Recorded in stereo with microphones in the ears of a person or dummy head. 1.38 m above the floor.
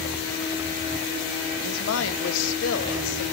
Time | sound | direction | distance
1.6 | a woman speaking | 80° left | 0.9 m